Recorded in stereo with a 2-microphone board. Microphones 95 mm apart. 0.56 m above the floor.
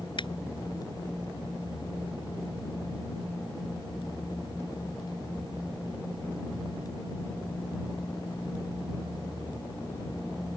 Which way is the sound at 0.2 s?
55° left (ahead or behind).